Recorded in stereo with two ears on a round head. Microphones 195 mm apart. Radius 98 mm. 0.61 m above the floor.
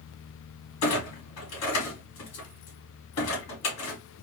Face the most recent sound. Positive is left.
turn(degrees=85)